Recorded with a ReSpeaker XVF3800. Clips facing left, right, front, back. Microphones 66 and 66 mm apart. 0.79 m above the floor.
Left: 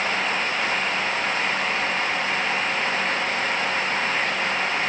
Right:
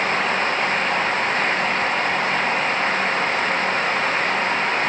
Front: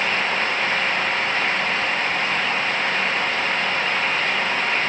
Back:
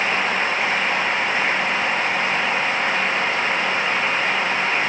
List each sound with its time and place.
Only background noise.